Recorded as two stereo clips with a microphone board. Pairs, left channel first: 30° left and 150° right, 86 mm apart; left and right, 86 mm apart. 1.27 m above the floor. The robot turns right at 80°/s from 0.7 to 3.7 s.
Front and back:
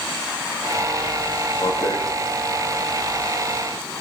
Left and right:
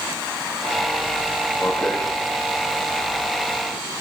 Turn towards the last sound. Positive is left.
turn(degrees=175)